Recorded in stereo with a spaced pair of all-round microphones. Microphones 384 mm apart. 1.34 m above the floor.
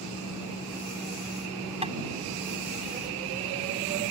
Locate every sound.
1.8 s tapping: 15° right (ahead or behind)